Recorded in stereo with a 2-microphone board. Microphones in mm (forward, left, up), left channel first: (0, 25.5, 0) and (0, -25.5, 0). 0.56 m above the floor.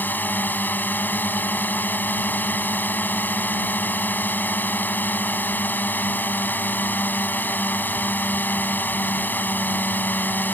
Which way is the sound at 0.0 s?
35° left (ahead or behind).